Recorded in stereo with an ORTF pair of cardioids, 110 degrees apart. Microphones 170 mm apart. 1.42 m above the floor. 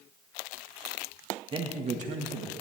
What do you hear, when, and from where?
1.5 s a man speaking: 30° right, 1.4 m; by 2.5 s 60° right, 1.7 m